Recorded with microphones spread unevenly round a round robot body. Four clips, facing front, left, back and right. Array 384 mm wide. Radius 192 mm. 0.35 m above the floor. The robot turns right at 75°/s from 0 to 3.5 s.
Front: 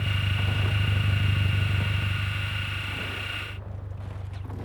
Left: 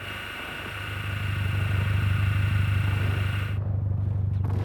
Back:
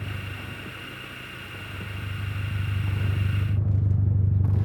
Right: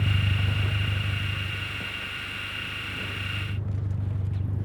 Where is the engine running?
90° right; by 4.7 s 175° left.